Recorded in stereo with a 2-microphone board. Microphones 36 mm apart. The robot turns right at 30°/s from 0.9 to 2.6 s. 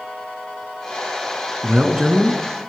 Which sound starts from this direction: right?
A man speaking, at 1.6 s.